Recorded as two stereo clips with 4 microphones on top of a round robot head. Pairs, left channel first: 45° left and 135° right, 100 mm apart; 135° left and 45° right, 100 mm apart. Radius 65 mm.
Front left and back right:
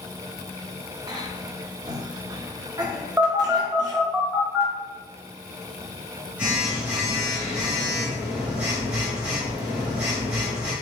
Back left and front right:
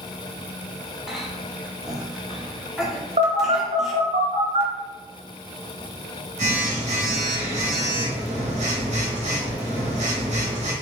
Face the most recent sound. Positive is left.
turn(degrees=-55)